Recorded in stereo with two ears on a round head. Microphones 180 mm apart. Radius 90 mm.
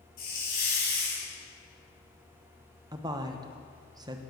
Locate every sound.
0.2 s a hiss: 50° left (ahead or behind), 5.5 m
2.9 s a woman speaking: 20° right (ahead or behind), 0.9 m